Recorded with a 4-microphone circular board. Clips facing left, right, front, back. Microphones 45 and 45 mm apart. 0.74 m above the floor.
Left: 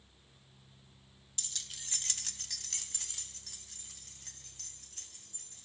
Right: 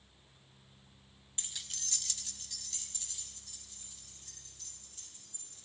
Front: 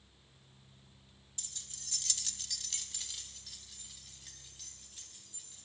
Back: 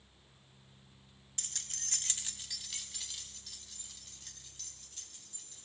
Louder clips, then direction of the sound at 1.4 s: Even, back 5 dB; 150° right.